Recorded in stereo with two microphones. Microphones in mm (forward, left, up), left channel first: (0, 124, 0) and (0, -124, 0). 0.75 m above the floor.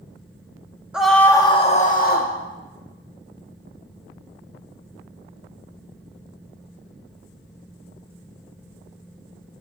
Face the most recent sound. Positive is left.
turn(degrees=40)  # may be behind; listen again after turning